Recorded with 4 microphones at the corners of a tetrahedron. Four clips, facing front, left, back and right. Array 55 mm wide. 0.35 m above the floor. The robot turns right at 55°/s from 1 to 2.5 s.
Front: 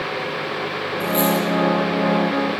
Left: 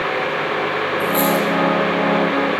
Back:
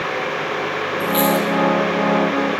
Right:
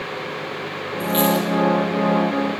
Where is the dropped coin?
145° right, 2.5 m; by 1.5 s 120° right, 2.5 m.